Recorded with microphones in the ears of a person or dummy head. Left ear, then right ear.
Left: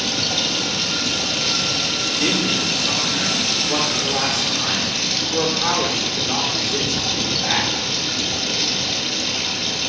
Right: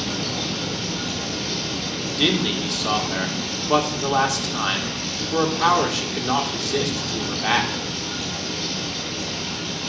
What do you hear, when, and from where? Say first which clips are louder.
0.0 s running water: left 6 dB; 50° left (ahead or behind), 3 m
2.2 s a man speaking: right 2 dB; 50° right (ahead or behind), 1.6 m